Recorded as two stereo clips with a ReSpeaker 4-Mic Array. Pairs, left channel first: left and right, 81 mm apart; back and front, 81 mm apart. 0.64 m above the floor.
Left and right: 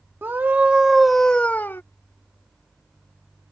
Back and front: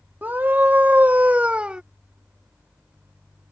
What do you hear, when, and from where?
0.2 s a scream: 50° right; by 1.8 s 65° left